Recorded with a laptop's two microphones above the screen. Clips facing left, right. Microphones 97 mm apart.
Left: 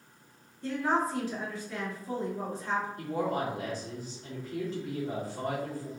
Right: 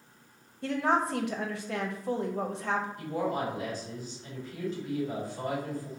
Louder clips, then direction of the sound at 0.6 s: Right 1 dB; 70° right (ahead or behind).